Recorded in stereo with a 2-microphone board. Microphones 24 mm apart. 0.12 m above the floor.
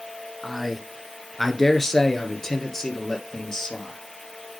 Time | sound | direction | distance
0.4 | a man speaking | centre (ahead or behind) | 1.1 m